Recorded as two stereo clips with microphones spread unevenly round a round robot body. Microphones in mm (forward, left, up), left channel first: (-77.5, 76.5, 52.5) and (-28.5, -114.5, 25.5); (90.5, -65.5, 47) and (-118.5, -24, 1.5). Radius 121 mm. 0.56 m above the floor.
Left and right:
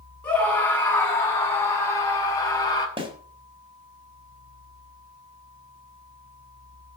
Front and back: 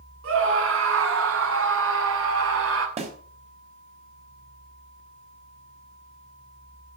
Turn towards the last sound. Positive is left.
turn(degrees=-135)